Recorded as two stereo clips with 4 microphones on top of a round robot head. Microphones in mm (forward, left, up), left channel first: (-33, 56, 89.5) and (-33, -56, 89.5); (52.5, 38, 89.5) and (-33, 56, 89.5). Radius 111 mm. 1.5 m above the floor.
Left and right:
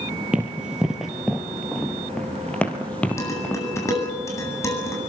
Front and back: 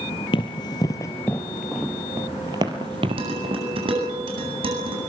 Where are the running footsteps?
10° right, 1.9 m; by 4.2 s 165° left, 2.5 m.